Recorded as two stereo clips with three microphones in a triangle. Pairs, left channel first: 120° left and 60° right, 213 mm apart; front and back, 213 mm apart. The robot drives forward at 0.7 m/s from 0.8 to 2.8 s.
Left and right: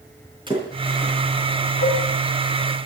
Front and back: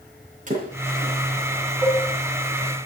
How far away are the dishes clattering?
About 7 m.